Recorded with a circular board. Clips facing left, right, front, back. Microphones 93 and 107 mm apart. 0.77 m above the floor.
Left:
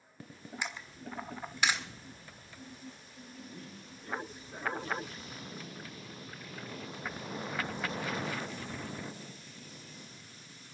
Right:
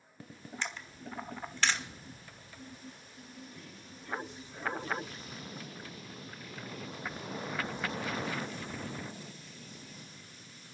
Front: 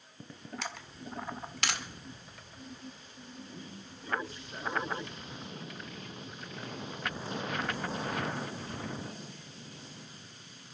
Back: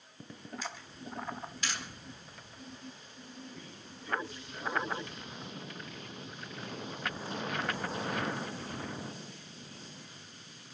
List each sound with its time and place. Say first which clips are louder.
0.6 s a camera shutter: even, front 2 dB; 10° left, 1.6 m
3.4 s a man speaking: left 3 dB, front 2 dB; 50° left, 6.5 m